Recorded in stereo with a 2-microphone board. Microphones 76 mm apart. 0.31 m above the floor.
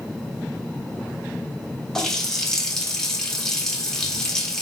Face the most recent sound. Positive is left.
turn(degrees=5)  # may be behind; listen again after turning